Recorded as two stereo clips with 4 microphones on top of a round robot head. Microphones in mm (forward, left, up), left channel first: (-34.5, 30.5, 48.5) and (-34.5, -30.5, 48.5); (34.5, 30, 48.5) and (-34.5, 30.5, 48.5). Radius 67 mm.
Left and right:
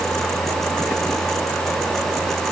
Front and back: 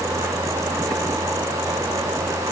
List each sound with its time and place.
Only background noise.